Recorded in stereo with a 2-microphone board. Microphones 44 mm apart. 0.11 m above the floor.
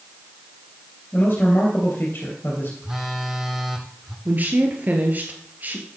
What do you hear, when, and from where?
1.1 s a man speaking: 45° left (ahead or behind), 3 m
2.8 s a phone buzzing: 10° right (ahead or behind), 1.5 m
4.2 s a woman speaking: 40° right (ahead or behind), 2 m